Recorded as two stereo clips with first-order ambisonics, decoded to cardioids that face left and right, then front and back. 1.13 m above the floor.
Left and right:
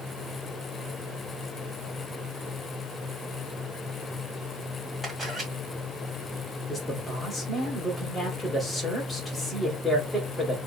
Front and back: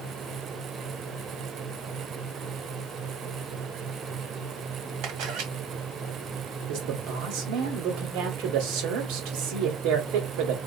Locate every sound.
5.0 s a camera shutter: 170° right, 1.9 m
6.7 s a man speaking: 170° left, 2 m